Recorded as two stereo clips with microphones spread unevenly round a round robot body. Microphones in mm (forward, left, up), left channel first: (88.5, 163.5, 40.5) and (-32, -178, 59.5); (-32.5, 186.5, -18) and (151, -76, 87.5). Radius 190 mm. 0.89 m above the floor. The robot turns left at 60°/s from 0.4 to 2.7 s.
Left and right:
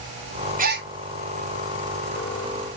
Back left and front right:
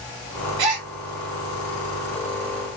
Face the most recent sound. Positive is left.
turn(degrees=-165)